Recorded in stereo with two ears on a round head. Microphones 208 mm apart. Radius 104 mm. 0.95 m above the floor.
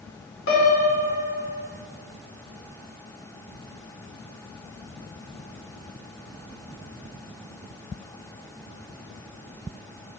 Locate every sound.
0.5 s a piano: 60° left (ahead or behind), 3.5 m